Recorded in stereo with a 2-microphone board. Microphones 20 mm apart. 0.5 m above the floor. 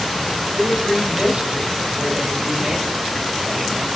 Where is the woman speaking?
55° right (ahead or behind), 3 m.